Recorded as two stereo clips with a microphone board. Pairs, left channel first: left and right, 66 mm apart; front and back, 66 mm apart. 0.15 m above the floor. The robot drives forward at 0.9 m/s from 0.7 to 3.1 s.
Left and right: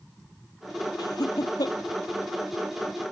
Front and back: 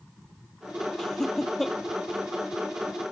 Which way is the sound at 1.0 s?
80° left.